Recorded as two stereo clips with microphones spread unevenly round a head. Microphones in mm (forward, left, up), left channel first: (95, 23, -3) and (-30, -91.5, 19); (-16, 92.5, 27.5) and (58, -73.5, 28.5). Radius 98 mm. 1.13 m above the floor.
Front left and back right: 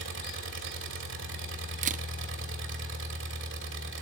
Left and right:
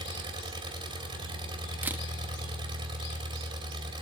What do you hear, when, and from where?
0.0 s an engine running: 135° right, 2.5 m
1.8 s a camera shutter: 145° right, 0.6 m